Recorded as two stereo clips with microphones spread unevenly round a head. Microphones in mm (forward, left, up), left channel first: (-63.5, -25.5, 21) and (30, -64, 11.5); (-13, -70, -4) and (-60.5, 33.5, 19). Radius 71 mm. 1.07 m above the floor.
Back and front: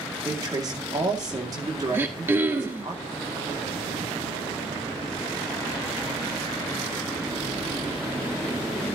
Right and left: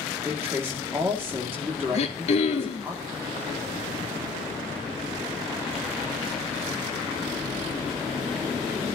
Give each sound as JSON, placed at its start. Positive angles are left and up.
{"t": 0.2, "sound": "a man speaking", "azimuth_deg": 35, "distance_m": 2.5}
{"t": 1.9, "sound": "throat clearing", "azimuth_deg": -90, "distance_m": 2.5}